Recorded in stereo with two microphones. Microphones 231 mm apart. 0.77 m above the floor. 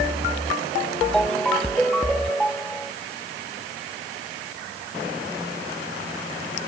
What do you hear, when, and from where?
1.1 s a ringtone: 5° left (ahead or behind)